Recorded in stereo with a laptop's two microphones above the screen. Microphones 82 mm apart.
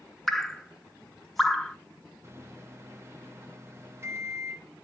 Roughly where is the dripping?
Centre.